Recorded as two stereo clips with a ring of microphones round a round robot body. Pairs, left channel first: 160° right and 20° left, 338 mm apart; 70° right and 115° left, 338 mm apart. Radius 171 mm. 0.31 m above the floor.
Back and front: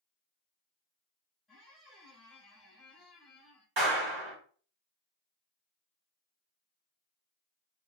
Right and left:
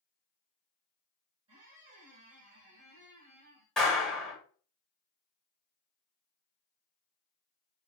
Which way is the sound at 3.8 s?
20° left.